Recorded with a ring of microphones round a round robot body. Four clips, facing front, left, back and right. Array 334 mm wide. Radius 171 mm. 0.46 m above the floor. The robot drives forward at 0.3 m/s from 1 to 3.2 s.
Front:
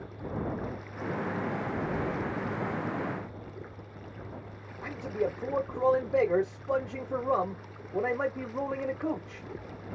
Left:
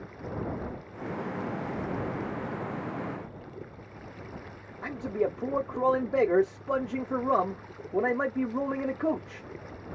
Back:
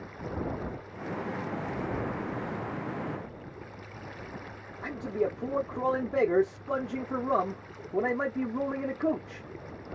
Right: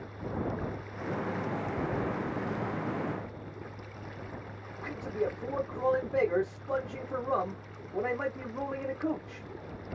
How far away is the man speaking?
About 0.8 m.